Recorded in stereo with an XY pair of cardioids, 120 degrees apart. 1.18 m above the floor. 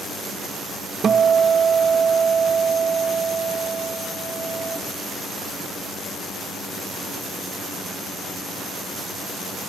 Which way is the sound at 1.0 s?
40° right.